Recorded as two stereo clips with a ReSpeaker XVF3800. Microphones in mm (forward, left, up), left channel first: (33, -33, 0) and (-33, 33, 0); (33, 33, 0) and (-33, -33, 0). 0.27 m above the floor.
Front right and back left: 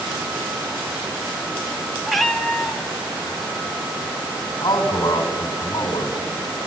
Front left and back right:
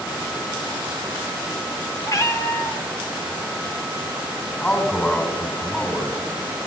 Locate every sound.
2.1 s a cat meowing: 45° left, 0.5 m
4.6 s a man speaking: 20° right, 1.8 m